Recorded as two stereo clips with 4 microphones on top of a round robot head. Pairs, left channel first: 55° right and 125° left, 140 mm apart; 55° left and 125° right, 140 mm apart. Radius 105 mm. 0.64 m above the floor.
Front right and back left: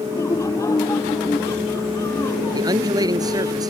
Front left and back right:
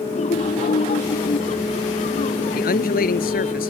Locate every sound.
0.1 s laughter: 15° left
2.5 s a man speaking: 65° left